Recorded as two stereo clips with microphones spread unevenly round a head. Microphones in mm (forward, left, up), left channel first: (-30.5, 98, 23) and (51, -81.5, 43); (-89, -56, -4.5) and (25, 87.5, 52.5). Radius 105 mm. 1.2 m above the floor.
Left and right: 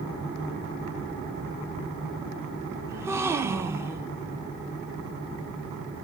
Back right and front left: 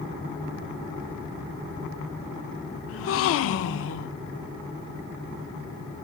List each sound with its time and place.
2.9 s a gasp: 145° right, 0.6 m